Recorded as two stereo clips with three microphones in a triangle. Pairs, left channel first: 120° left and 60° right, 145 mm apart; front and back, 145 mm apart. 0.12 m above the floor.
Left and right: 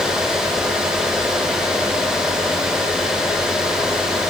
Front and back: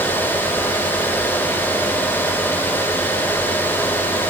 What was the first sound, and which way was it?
Only background noise.